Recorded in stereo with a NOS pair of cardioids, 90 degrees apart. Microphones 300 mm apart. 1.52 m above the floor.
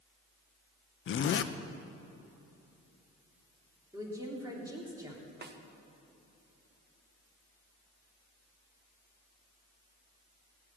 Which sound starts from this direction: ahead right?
A snare drum, at 5.4 s.